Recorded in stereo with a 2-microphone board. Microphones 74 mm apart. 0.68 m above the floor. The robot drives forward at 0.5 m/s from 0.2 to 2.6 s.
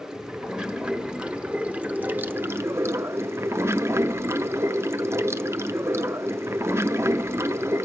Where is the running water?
10° right (ahead or behind), 1.6 m; by 7.9 s 35° right (ahead or behind), 0.5 m.